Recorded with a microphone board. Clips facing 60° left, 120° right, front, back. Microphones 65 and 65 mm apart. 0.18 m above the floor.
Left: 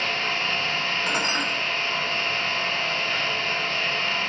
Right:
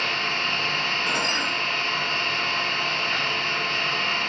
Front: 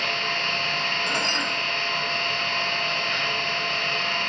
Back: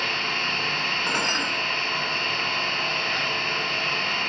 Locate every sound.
0.0 s an engine running: 95° right, 2.5 m
1.1 s dishes clattering: 135° left, 1.0 m